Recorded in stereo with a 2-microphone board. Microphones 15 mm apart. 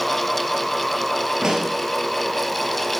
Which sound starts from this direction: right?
A pop, at 1.4 s.